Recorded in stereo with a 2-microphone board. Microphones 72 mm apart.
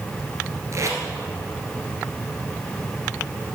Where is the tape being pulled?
45° right (ahead or behind), 1.6 m.